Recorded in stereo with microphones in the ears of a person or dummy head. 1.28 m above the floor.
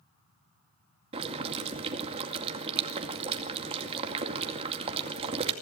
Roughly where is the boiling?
Right.